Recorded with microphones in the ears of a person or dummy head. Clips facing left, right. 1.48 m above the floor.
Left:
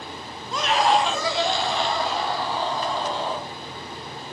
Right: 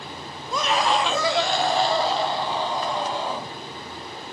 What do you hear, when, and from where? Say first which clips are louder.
0.5 s a scream: left 2 dB; 70° right (ahead or behind), 0.9 m; by 3.5 s 10° right (ahead or behind), 2.5 m